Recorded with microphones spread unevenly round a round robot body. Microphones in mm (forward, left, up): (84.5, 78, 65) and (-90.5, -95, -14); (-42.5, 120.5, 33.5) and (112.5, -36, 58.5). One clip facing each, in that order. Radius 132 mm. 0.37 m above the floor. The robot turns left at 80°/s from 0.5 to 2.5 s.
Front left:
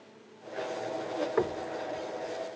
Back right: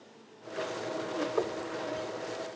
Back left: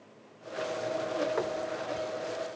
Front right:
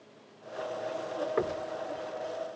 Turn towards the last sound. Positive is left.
turn(degrees=-100)